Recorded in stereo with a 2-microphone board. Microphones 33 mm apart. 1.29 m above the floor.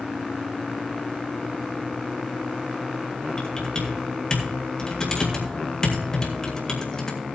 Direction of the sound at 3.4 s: 25° left (ahead or behind).